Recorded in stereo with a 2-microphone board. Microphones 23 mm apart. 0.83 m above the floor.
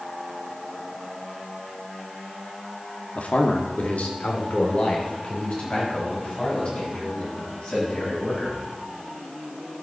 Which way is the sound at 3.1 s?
65° left (ahead or behind).